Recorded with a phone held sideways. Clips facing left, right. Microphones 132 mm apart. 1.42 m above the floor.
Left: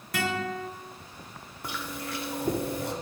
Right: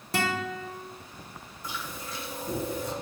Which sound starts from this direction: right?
A guitar, at 0.1 s.